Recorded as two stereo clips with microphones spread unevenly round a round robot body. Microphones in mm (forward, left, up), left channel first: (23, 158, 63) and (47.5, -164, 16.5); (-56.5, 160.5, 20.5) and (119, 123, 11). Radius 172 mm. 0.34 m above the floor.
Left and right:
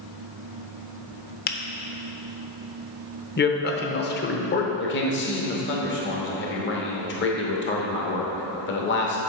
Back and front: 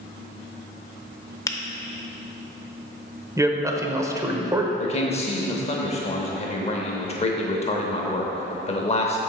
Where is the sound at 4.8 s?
140° left, 0.9 m.